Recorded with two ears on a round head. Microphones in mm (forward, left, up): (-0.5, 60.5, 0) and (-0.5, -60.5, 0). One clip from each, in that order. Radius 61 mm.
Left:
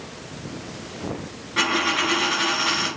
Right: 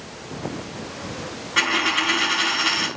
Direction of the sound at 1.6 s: 50° right (ahead or behind).